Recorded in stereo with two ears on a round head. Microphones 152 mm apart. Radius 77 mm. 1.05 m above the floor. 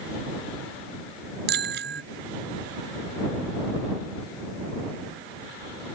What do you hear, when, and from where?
1.5 s a bicycle bell: 65° right (ahead or behind)